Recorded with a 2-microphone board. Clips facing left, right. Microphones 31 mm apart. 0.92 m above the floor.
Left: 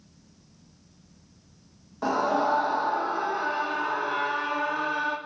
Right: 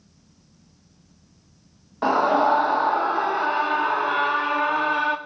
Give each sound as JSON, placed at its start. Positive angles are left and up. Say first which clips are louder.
{"t": 2.0, "sound": "a scream", "louder": "right 6 dB", "side_deg": -35, "distance_m": 0.7}